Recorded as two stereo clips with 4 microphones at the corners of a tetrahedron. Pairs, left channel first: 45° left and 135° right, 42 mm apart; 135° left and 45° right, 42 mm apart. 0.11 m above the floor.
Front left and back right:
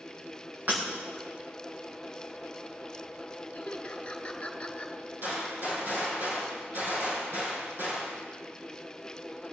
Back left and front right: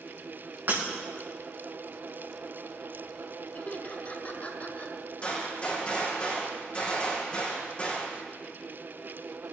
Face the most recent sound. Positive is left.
turn(degrees=-165)